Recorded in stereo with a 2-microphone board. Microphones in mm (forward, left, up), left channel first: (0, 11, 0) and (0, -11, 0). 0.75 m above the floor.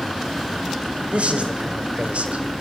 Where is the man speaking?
85° right, 3 m; by 2.6 s 75° right (ahead or behind), 2.5 m.